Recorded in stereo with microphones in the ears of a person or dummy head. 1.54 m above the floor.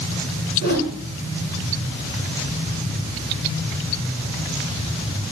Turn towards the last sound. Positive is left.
turn(degrees=65)  # may be behind; listen again after turning